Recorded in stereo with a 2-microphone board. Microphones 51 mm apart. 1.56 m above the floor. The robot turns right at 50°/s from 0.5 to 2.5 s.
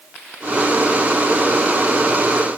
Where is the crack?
I don't hear a crack.